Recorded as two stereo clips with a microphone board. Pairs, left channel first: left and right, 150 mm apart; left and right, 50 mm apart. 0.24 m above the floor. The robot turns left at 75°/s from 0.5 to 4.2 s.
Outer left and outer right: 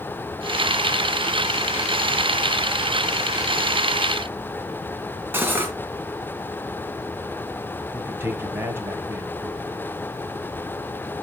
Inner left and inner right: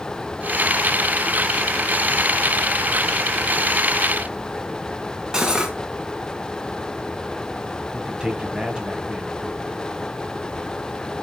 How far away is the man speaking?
About 1.3 m.